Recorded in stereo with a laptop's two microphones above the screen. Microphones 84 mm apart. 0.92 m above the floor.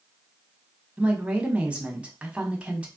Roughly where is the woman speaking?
Centre.